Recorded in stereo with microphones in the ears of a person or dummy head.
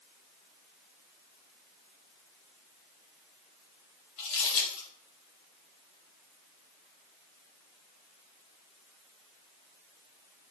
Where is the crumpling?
55° left (ahead or behind), 1.9 m.